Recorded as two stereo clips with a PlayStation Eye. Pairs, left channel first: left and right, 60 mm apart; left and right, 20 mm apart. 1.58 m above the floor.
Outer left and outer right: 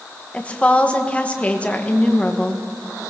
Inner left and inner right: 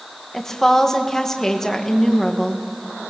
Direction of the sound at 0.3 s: 20° left (ahead or behind).